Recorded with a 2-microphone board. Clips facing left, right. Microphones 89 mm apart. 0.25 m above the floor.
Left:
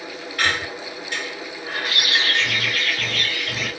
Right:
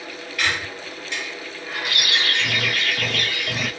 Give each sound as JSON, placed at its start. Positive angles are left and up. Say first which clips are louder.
{"t": 0.4, "sound": "a squeak", "louder": "left 2 dB", "side_deg": 45, "distance_m": 1.3}
{"t": 1.9, "sound": "a bird", "louder": "left 1 dB", "side_deg": -65, "distance_m": 1.7}